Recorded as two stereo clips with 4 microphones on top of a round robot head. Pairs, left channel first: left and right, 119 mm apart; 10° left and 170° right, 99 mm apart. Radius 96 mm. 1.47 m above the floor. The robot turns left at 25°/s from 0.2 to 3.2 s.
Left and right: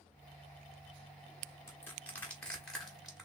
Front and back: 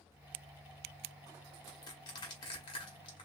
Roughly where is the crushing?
Ahead left.